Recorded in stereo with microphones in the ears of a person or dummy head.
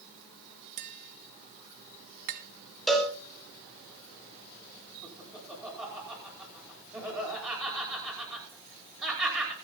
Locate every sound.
0.8 s tapping: 55° right (ahead or behind), 1.4 m
2.9 s a cowbell: centre (ahead or behind), 3 m
5.0 s laughter: centre (ahead or behind), 9 m